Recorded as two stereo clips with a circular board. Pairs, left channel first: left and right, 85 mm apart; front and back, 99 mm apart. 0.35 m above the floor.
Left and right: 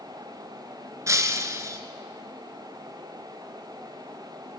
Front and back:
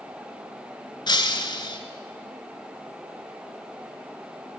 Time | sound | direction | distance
1.1 | breaking glass | 40° right | 1.1 m